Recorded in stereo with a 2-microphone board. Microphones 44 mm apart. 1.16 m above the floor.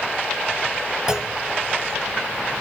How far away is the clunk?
About 0.6 m.